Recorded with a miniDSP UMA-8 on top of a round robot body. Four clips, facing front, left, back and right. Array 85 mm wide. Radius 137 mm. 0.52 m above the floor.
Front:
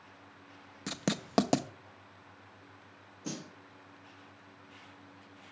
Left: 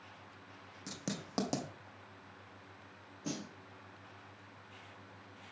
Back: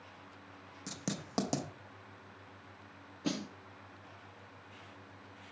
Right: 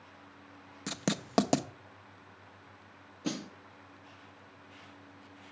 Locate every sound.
0.9 s writing: 50° right, 0.8 m
3.2 s a snare drum: 135° right, 1.7 m